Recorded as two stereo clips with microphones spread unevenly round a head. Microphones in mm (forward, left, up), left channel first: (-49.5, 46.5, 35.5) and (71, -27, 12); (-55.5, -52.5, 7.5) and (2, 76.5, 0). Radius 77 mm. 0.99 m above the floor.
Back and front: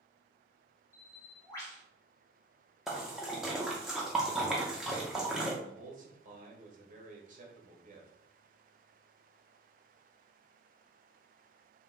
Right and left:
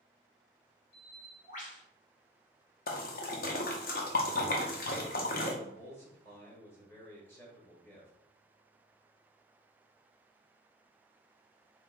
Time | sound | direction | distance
0.9 | a bird | 135° right | 1.3 m
2.9 | a splash | 125° right | 0.7 m
5.6 | a man speaking | 40° right | 1.2 m